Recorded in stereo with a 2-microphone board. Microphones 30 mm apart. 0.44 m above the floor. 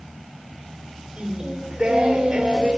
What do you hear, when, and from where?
1.2 s singing: 30° right (ahead or behind), 1.2 m